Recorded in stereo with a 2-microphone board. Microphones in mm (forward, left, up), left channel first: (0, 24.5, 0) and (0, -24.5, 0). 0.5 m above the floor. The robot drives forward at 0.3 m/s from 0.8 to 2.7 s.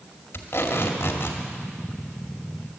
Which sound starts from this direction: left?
Tape being pulled, at 0.3 s.